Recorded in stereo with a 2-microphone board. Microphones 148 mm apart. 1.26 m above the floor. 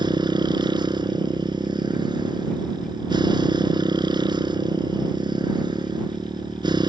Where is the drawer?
No drawer in this recording.